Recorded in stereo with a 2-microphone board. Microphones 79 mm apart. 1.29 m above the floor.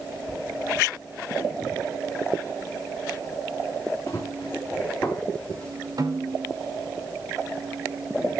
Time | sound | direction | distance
4.1 | running footsteps | 35° left (ahead or behind) | 4 m
6.0 | a snare drum | 55° right (ahead or behind) | 2.5 m